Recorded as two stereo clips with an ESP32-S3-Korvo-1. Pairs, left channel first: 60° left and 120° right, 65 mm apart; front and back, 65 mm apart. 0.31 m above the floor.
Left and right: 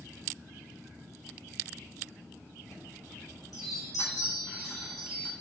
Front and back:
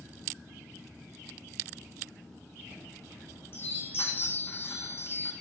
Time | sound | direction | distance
2.6 | a chime | 50° left | 3.5 m